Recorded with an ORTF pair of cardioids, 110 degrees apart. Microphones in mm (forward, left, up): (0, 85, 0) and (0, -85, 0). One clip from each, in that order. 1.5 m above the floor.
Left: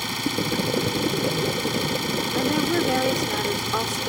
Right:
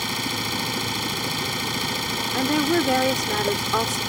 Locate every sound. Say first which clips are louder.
0.0 s an engine running: even; 10° right
2.3 s a woman speaking: right 2 dB; 20° right